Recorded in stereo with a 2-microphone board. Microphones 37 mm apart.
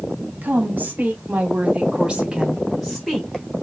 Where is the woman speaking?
50° right (ahead or behind), 1.9 m; by 3.5 s 20° left (ahead or behind), 1.3 m.